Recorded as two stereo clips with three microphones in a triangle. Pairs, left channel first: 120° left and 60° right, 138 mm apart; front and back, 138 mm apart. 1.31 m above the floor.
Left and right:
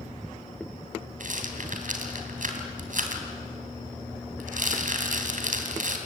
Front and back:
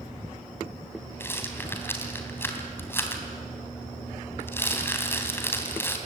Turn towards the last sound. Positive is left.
turn(degrees=-75)